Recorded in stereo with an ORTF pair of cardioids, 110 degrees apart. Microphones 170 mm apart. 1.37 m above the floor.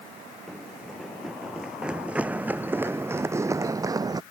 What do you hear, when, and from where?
0.5 s running footsteps: straight ahead; by 4.2 s 25° right